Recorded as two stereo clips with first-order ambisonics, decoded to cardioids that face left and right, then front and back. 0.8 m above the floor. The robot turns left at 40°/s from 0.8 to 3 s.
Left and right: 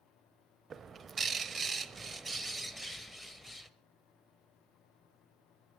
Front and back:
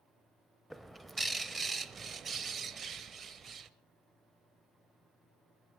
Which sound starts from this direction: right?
A bird, at 0.7 s.